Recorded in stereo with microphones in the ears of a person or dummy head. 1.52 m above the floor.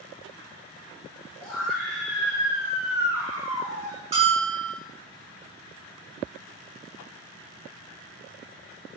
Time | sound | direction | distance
1.4 | a scream | 15° left (ahead or behind) | 1.8 m
4.1 | a bell | 35° right (ahead or behind) | 1.9 m